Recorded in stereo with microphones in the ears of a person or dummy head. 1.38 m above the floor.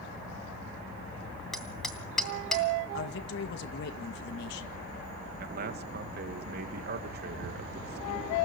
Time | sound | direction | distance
1.5 | hammering | 5° left (ahead or behind) | 3 m
2.9 | a man speaking | 55° left (ahead or behind) | 2 m
5.4 | a man speaking | 55° right (ahead or behind) | 1.7 m